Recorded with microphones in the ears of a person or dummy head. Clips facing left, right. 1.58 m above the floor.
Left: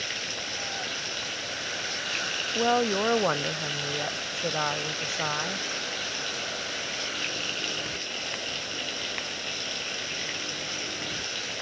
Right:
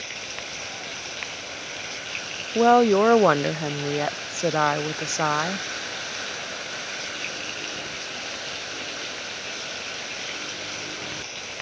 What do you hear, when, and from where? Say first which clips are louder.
0.0 s running water: even; 15° left (ahead or behind)
2.5 s a woman speaking: right 9 dB; 65° right (ahead or behind)